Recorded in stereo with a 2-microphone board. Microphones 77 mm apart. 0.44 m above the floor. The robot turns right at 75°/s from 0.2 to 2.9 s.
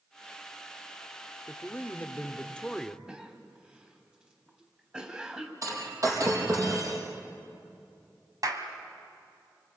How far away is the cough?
About 3.5 m.